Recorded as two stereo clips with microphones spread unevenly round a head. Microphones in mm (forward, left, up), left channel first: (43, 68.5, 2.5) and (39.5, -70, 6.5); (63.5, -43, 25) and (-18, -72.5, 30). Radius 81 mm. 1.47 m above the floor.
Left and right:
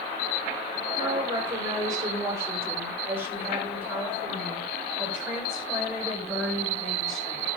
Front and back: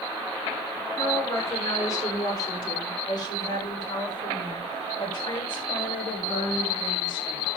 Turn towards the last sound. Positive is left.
turn(degrees=0)